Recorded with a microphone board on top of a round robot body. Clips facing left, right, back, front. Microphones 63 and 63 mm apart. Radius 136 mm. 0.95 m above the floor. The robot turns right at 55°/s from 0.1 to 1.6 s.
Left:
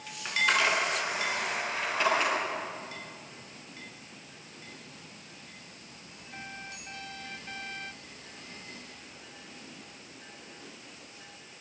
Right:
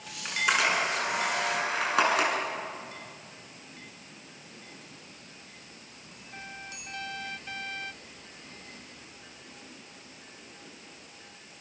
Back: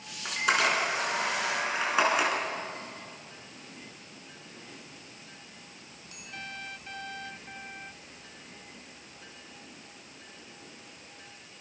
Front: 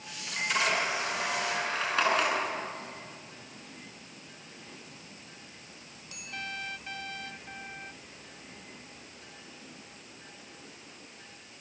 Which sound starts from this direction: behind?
A camera shutter, at 0.2 s.